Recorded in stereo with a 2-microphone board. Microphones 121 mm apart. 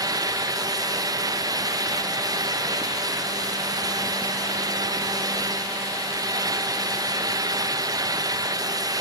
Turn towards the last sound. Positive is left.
No sound to turn to.